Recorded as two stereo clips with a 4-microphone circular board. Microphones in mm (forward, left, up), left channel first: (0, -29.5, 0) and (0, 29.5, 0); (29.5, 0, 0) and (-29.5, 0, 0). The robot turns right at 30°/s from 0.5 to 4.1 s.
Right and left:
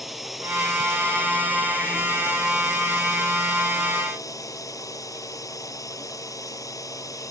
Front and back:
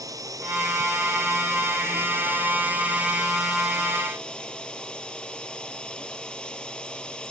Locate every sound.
0.0 s a drone: straight behind; by 7.3 s 75° right